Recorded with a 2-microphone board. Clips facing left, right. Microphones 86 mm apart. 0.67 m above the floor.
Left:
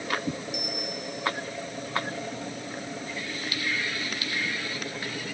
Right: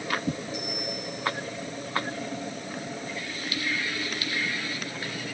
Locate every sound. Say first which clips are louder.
0.5 s a bell: even; 75° left (ahead or behind), 5.5 m